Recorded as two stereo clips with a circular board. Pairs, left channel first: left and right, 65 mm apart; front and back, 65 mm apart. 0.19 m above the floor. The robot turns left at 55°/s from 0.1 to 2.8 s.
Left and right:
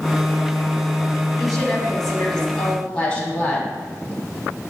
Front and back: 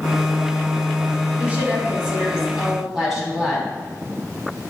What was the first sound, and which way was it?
A woman speaking, 175° right.